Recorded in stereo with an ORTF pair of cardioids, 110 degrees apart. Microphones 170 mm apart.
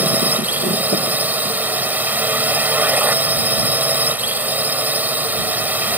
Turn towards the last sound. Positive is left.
turn(degrees=-10)